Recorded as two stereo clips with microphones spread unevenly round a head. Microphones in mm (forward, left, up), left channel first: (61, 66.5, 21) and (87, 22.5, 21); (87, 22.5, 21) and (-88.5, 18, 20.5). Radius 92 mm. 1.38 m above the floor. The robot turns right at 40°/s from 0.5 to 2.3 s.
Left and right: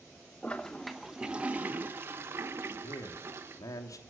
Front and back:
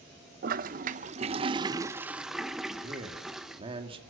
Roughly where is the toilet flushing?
Behind.